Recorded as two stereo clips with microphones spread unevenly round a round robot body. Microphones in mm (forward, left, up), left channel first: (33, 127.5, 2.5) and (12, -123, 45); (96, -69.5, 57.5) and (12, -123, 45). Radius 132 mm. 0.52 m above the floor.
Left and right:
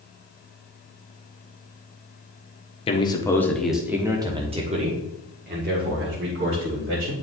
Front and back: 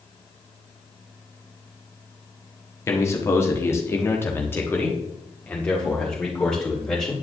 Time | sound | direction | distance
2.9 | a man speaking | 80° left | 1.2 m